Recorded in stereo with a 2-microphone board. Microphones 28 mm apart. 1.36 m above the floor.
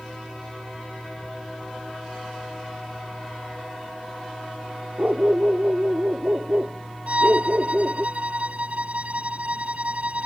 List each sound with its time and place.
5.0 s a dog barking: 55° right (ahead or behind); by 8.1 s 50° right (ahead or behind)
7.1 s a violin: 50° right (ahead or behind)